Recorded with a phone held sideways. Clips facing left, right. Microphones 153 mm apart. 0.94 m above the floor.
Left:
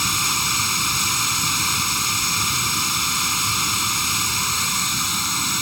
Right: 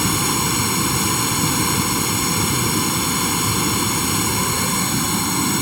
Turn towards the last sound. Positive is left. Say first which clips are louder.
# right 8 dB
turn(degrees=-55)  # may be behind; listen again after turning